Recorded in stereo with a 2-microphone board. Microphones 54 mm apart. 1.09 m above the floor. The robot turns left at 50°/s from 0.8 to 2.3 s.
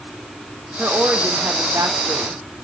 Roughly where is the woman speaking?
Ahead right.